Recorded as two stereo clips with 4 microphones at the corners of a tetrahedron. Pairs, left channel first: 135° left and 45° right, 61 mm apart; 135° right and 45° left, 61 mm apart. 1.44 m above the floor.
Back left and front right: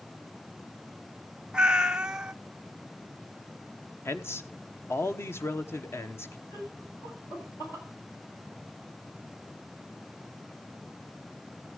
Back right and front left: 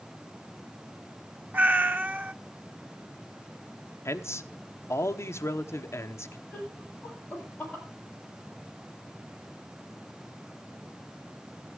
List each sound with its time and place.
1.5 s a cat meowing: 25° left, 0.6 m
4.0 s a man speaking: 175° right, 1.0 m
6.5 s laughter: 145° left, 10 m